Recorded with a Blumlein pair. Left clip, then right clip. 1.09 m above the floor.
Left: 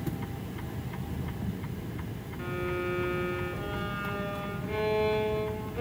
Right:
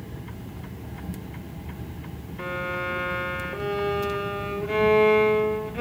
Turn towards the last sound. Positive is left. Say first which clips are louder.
# right 4 dB
turn(degrees=-20)